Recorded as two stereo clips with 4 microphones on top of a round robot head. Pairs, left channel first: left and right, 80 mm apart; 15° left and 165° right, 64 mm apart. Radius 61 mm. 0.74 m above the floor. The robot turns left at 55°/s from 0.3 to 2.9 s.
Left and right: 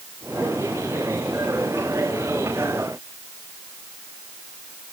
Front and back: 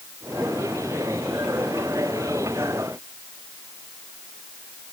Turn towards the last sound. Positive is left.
No sound to turn to.